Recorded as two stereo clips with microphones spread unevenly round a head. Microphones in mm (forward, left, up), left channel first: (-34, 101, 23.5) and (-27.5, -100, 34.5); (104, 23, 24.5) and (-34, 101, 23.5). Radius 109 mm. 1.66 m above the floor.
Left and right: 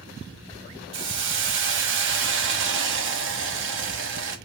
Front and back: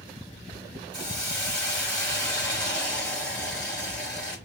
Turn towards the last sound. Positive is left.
turn(degrees=-115)